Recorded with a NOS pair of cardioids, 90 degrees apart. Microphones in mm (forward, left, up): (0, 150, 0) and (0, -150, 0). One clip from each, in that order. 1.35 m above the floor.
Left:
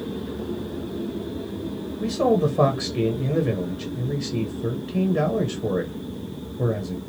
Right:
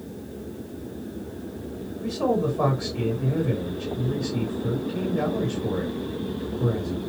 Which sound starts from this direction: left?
A man speaking, at 2.0 s.